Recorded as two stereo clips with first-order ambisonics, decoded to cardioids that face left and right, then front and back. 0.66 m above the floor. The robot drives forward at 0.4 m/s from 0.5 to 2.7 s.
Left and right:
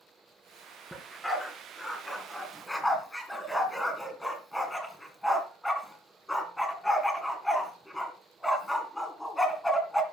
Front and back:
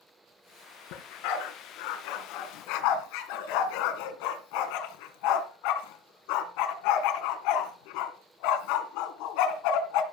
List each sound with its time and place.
0.9 s a dog barking: 5° left, 3 m